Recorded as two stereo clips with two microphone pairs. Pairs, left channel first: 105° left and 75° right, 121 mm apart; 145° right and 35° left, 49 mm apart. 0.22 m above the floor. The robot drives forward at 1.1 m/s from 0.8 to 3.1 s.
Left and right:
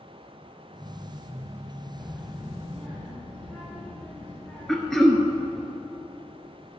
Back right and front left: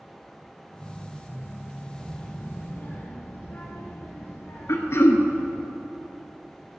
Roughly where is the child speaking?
Ahead right.